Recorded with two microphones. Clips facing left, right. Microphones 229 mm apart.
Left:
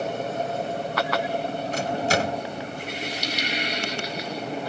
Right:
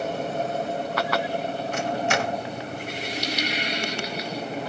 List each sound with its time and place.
1.7 s a microwave: 35° left (ahead or behind), 0.8 m